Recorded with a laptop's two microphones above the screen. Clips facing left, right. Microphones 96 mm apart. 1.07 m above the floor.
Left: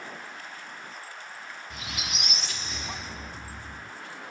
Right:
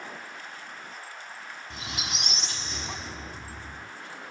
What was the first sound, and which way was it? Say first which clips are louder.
A squeak: right 1 dB; 30° right (ahead or behind).